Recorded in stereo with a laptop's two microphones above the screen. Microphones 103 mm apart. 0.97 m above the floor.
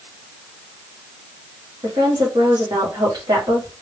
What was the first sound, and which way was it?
A woman speaking, 45° right (ahead or behind).